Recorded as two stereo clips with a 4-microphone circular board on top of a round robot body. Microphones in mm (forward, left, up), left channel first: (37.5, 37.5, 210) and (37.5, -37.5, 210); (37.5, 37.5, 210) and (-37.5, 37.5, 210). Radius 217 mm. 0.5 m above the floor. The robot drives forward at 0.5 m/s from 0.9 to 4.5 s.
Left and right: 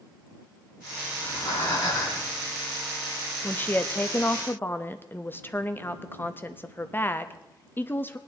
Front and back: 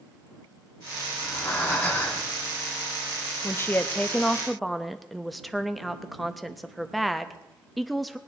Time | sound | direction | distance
1.1 | breathing | 65° left | 5.5 m
3.4 | a woman speaking | 35° left | 1.1 m